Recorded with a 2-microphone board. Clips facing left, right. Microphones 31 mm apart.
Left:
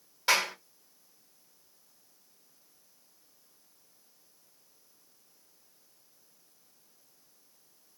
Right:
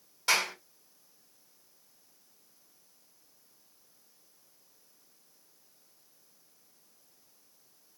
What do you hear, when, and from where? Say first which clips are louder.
0.3 s a clap: left 1 dB; 15° left (ahead or behind), 1.4 m